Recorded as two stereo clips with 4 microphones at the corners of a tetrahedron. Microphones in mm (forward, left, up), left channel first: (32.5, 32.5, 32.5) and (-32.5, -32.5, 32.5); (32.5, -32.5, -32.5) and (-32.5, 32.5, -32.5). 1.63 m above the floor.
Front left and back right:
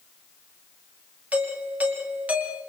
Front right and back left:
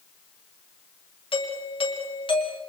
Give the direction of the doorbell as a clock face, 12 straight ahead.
2 o'clock.